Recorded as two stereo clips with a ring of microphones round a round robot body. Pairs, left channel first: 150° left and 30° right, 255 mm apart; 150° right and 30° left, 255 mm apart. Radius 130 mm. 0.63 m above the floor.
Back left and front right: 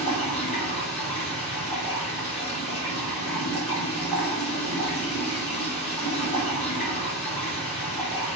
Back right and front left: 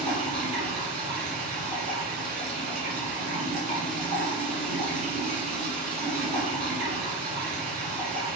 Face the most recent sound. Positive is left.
turn(degrees=85)